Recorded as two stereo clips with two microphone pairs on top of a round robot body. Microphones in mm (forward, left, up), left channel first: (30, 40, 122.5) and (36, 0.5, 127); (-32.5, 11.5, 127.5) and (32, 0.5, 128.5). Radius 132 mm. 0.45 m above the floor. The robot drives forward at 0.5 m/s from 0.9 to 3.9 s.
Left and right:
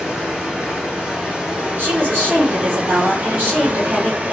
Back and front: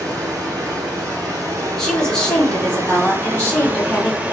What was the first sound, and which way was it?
Running water, 15° right.